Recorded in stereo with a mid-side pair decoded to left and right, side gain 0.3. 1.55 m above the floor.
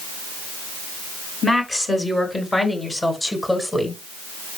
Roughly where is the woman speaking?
Ahead left.